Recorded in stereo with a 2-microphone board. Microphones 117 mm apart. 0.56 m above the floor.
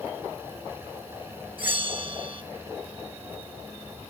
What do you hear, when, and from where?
1.6 s a bell: 45° right (ahead or behind), 1.4 m